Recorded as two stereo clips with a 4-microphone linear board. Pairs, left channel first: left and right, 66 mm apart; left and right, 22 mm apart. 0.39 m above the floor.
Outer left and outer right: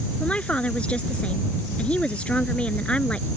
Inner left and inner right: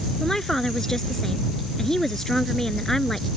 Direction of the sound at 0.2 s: 15° left (ahead or behind).